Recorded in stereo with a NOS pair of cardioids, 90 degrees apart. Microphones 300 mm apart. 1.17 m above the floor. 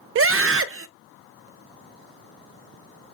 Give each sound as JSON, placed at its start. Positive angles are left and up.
{"t": 0.1, "sound": "a scream", "azimuth_deg": -45, "distance_m": 0.7}